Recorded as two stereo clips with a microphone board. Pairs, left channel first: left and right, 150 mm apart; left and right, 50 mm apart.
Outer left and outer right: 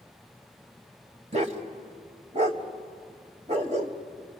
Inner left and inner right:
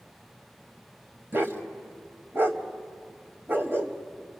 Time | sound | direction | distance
1.3 | a dog barking | 45° right (ahead or behind) | 1.4 m